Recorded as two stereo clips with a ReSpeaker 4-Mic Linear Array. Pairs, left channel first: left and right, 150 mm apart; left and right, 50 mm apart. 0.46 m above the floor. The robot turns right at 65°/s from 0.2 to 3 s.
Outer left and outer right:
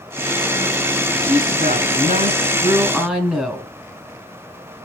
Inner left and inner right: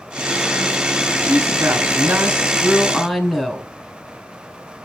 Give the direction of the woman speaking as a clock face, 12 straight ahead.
4 o'clock.